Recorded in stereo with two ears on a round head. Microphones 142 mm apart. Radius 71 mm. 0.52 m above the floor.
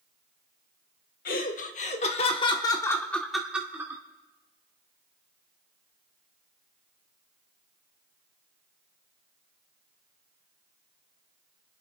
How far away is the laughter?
About 1.4 m.